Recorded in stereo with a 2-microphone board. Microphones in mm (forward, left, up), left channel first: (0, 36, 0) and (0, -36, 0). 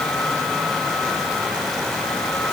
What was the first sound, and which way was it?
Only background noise.